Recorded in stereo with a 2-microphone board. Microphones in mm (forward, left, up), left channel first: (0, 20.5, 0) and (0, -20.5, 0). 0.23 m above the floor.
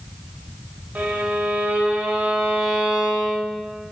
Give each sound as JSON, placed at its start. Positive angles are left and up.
{"t": 0.9, "sound": "a violin", "side_deg": -35, "distance_m": 0.7}